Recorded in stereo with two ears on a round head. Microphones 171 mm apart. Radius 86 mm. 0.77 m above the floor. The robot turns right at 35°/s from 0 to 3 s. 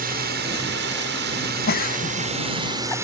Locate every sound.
0.0 s a drone: 120° right; by 3.0 s 15° right
1.7 s a giggle: 55° left (ahead or behind); by 3.0 s 10° left (ahead or behind)